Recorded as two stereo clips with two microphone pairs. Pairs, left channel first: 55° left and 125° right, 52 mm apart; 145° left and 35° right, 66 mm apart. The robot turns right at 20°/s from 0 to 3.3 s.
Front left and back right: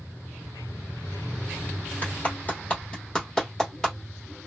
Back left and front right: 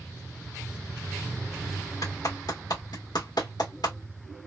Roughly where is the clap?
Left.